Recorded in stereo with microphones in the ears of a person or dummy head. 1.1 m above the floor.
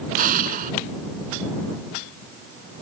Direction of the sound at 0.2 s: 50° right (ahead or behind).